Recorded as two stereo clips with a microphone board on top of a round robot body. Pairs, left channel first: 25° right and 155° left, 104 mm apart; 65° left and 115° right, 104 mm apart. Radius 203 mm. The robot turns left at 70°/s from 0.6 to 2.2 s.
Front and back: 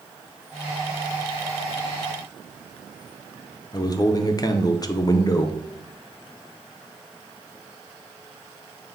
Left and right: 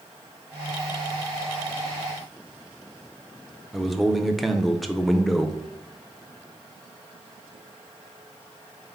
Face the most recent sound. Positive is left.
turn(degrees=-20)